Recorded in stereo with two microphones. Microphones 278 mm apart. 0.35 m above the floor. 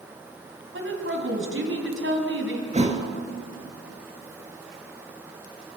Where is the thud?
25° right (ahead or behind), 1.8 m.